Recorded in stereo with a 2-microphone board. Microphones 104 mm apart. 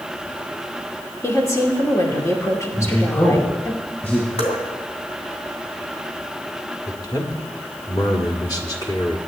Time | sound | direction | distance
1.2 | a woman speaking | 30° left (ahead or behind) | 2.5 m
2.7 | a man speaking | 20° left (ahead or behind) | 5 m
4.4 | dripping | 85° left | 2.5 m
6.9 | a man speaking | 40° left (ahead or behind) | 1.7 m